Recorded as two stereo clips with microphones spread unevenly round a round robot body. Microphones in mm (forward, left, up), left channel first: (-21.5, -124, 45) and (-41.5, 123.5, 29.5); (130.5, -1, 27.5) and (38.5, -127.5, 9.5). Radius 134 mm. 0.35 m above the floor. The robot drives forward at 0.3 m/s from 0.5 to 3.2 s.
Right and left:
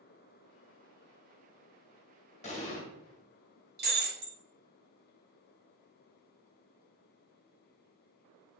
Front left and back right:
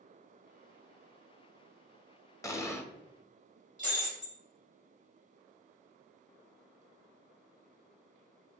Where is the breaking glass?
145° left, 1.4 m.